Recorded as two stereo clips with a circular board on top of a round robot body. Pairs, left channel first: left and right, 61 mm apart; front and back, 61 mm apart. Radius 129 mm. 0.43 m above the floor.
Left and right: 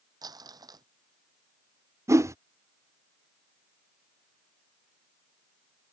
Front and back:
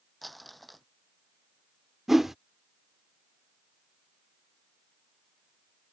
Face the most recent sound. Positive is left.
turn(degrees=-95)